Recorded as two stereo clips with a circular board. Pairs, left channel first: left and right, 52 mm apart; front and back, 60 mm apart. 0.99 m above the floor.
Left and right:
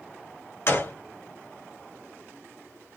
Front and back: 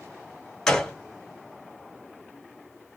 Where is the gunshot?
80° left, 1.3 m.